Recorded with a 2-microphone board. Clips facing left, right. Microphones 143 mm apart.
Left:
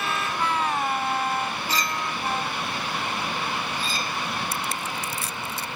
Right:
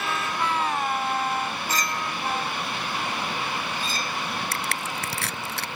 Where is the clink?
45° right (ahead or behind).